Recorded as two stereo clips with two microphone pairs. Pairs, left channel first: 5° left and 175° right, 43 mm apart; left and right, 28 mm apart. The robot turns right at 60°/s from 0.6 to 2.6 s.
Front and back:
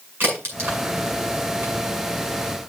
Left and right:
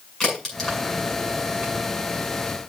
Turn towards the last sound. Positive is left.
turn(degrees=-75)